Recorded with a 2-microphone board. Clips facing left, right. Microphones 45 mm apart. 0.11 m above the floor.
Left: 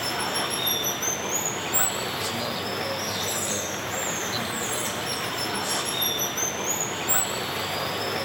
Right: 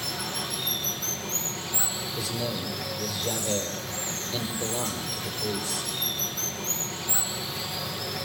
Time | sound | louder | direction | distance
0.0 | running water | left 6 dB | 50° left (ahead or behind) | 1.3 m
2.2 | a man speaking | left 2 dB | 5° right (ahead or behind) | 4.5 m